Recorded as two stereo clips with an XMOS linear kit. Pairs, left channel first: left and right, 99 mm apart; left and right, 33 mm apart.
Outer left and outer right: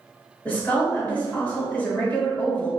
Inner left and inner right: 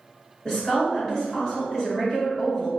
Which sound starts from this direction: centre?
A woman speaking, at 0.5 s.